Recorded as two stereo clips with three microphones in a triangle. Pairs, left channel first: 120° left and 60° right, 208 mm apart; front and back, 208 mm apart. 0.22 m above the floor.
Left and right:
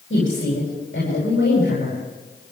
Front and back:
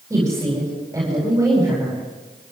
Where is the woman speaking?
105° left, 9.5 m.